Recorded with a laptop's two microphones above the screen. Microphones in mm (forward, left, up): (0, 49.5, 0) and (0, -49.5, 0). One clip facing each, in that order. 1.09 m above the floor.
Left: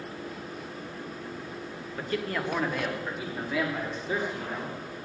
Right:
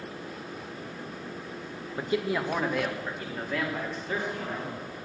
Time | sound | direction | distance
2.0 | a man speaking | 20° right (ahead or behind) | 1.0 m